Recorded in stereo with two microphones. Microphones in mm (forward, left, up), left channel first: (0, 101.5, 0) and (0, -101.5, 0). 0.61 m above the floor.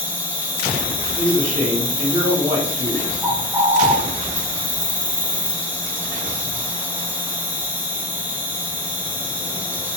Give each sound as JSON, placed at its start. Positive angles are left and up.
{"t": 0.0, "sound": "an insect", "side_deg": -10, "distance_m": 0.8}
{"t": 1.2, "sound": "a man speaking", "side_deg": 35, "distance_m": 1.7}
{"t": 3.2, "sound": "a bird", "side_deg": -10, "distance_m": 0.9}